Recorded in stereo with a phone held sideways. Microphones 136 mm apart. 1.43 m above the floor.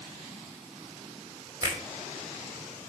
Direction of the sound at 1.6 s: 30° right (ahead or behind).